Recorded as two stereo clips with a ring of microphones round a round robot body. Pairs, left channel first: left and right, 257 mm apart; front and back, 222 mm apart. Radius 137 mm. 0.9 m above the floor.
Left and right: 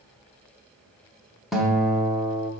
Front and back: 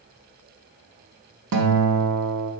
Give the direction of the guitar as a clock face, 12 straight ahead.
6 o'clock.